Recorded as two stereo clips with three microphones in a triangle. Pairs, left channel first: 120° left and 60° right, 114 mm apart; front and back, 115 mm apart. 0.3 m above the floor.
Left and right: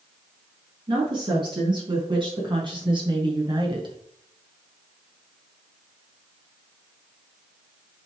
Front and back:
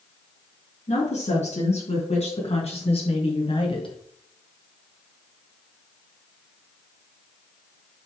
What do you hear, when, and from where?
0.9 s a woman speaking: 10° right, 4.5 m; by 4.0 s 25° right, 2 m